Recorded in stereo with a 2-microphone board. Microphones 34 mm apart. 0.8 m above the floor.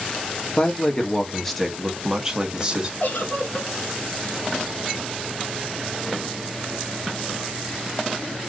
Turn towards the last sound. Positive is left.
turn(degrees=65)  # may be behind; listen again after turning